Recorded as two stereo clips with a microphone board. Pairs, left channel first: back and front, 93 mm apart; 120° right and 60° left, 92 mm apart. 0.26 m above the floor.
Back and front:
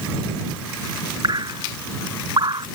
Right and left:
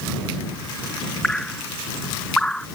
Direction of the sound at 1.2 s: 35° right.